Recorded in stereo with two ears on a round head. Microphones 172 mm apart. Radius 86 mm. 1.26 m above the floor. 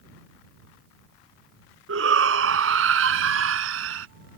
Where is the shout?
80° right; by 4.1 s 85° right.